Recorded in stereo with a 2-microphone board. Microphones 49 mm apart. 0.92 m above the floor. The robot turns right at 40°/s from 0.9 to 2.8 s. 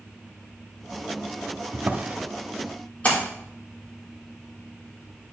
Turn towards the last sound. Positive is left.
turn(degrees=30)  # may be behind; listen again after turning